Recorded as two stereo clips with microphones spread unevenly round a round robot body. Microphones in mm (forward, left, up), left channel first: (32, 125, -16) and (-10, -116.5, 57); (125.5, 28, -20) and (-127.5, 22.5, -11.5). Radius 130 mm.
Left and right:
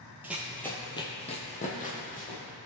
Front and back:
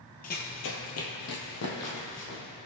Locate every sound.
0.2 s running footsteps: 45° right, 1.3 m; by 2.4 s 20° left, 3 m